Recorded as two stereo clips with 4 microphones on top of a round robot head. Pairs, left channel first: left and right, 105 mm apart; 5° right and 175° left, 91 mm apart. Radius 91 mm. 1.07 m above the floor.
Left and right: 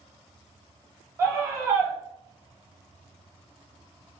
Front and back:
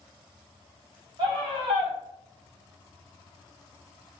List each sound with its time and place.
1.2 s a scream: 150° right, 2.0 m